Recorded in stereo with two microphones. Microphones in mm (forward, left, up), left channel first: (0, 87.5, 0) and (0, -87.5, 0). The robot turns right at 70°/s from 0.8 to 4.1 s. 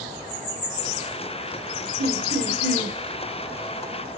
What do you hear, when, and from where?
2.0 s laughter: 100° right, 1.2 m; by 3.0 s 30° right, 1.2 m